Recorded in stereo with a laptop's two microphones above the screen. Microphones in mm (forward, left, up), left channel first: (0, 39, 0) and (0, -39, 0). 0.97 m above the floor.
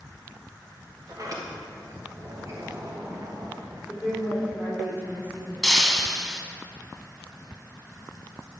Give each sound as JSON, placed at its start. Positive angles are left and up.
{"t": 1.1, "sound": "a sliding door", "side_deg": -45, "distance_m": 1.3}
{"t": 3.9, "sound": "a woman speaking", "side_deg": -25, "distance_m": 3.5}
{"t": 5.6, "sound": "breaking glass", "side_deg": 0, "distance_m": 1.4}